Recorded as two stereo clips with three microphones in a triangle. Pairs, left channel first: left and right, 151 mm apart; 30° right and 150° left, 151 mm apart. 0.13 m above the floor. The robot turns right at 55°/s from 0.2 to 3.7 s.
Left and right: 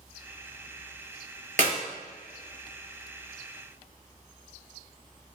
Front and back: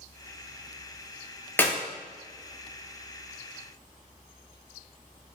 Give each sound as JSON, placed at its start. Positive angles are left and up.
{"t": 1.6, "sound": "a clap", "azimuth_deg": -105, "distance_m": 2.0}